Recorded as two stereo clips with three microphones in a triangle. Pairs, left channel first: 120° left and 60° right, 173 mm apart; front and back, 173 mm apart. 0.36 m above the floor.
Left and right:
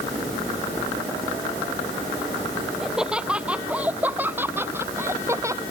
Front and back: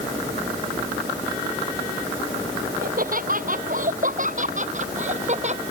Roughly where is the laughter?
Behind right.